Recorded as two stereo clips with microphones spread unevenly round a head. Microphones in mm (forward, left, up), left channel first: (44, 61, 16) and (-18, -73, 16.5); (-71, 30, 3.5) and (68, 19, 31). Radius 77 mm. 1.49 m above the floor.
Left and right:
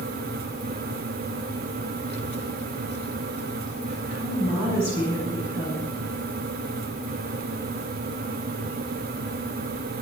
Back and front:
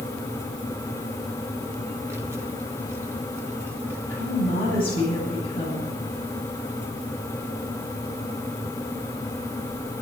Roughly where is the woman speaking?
Behind left.